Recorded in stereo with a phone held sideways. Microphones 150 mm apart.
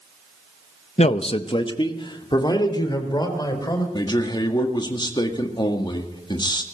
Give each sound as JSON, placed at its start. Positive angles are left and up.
{"t": 1.0, "sound": "a man speaking", "side_deg": 50, "distance_m": 0.6}
{"t": 3.9, "sound": "a man speaking", "side_deg": 30, "distance_m": 1.9}